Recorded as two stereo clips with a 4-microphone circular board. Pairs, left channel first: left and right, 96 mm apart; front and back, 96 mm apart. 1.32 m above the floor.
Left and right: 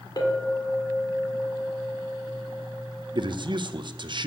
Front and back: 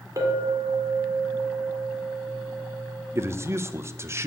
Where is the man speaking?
120° right, 0.6 m.